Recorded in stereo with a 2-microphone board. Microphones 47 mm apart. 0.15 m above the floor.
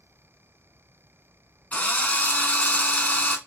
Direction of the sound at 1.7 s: 35° left (ahead or behind).